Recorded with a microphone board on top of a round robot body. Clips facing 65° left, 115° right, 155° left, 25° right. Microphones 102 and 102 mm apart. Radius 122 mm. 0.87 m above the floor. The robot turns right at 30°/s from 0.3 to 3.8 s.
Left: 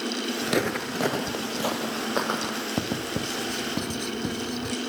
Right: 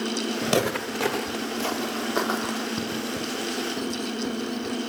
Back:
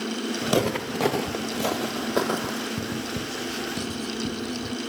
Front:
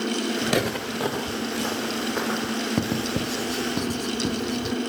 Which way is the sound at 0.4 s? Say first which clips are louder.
Right 2 dB, back 1 dB; 135° right.